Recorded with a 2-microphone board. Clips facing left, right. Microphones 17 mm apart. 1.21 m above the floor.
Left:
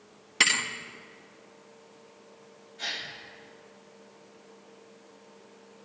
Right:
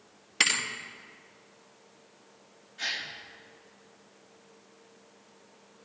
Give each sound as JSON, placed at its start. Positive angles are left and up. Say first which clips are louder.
{"t": 0.4, "sound": "a thud", "louder": "left 2 dB", "side_deg": 0, "distance_m": 0.7}
{"t": 2.8, "sound": "a gasp", "louder": "right 1 dB", "side_deg": -35, "distance_m": 1.6}